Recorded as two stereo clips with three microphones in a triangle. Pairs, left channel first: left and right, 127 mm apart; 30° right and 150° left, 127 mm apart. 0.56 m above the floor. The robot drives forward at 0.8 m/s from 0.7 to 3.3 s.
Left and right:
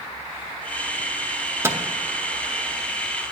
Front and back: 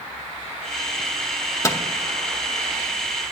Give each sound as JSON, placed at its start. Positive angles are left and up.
{"t": 1.6, "sound": "a microwave", "azimuth_deg": -50, "distance_m": 0.6}